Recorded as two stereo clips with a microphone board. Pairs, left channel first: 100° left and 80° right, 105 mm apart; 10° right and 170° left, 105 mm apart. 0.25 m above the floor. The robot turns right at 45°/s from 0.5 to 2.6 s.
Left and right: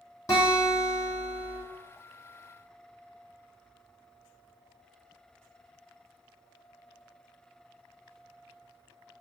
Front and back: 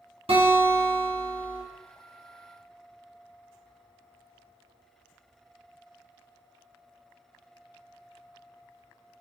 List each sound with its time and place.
0.3 s a guitar: 155° left, 1.8 m; by 1.6 s 155° right, 1.8 m